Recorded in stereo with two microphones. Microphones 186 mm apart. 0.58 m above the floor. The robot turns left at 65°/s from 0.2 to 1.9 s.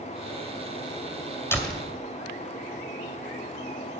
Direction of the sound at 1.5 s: 15° left (ahead or behind).